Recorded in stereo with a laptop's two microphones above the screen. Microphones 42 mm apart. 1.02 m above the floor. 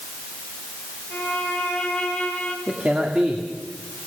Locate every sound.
1.1 s a violin: 15° left (ahead or behind), 5 m
2.7 s a man speaking: 35° right (ahead or behind), 2 m